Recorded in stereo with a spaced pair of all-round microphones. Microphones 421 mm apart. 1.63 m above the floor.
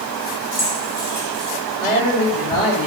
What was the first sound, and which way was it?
Keys jangling, 50° left (ahead or behind).